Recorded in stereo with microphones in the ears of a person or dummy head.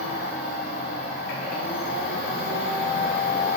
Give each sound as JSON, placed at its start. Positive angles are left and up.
{"t": 0.0, "sound": "a machine running", "side_deg": 65, "distance_m": 3.0}